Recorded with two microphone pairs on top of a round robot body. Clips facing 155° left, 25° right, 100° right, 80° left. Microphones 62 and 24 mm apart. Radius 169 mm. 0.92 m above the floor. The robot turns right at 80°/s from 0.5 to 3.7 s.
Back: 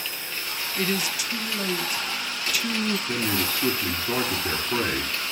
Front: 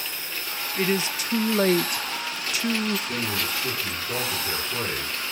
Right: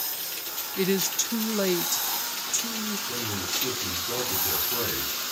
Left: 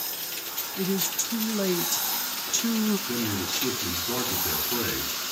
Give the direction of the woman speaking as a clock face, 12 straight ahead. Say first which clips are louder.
Front 2 dB, right 3 dB; 4 o'clock.